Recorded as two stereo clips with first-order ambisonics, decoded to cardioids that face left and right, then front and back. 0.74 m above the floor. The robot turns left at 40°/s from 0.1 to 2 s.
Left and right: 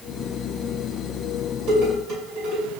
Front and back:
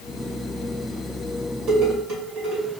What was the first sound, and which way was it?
Dishes clattering, 130° right.